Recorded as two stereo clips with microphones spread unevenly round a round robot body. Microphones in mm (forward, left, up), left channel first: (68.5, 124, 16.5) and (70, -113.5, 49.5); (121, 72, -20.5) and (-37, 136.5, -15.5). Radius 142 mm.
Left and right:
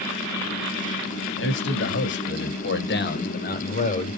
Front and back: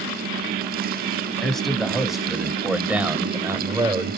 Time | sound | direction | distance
1.4 | a man speaking | 65° left | 3.5 m